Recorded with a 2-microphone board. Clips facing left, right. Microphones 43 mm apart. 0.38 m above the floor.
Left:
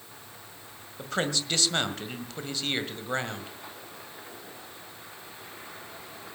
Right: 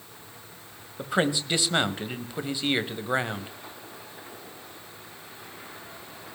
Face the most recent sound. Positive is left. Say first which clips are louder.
# right 4 dB
turn(degrees=-15)  # may be behind; listen again after turning